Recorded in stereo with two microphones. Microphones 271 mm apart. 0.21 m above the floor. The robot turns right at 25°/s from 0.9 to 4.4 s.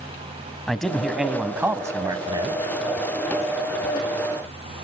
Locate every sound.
0.7 s a man speaking: centre (ahead or behind), 1.1 m; by 2.6 s 15° right (ahead or behind), 1.1 m